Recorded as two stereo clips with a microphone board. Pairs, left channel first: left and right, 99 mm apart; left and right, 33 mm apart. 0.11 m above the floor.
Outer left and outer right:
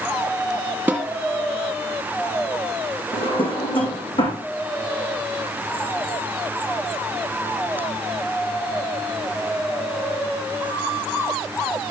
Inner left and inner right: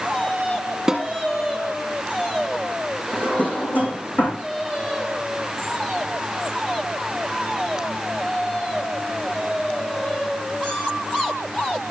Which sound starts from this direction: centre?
A snare drum, at 0.9 s.